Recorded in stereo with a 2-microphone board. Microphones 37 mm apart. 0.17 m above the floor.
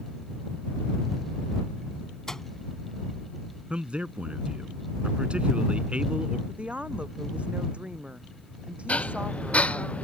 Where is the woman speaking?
35° right (ahead or behind).